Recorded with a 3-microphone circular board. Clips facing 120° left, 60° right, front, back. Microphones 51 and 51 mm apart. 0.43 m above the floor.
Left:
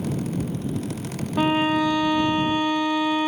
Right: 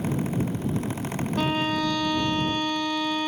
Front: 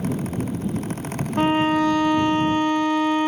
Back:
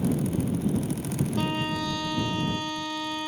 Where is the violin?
50° left.